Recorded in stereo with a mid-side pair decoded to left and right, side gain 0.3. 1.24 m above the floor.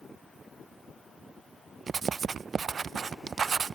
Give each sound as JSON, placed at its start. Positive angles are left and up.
{"t": 1.9, "sound": "writing", "azimuth_deg": -65}